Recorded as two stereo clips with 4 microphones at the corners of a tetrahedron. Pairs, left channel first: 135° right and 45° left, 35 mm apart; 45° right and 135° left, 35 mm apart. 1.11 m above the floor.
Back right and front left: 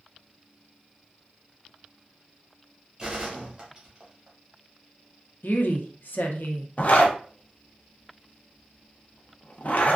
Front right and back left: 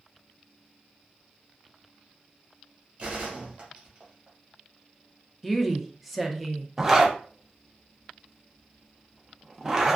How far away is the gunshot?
About 1.2 m.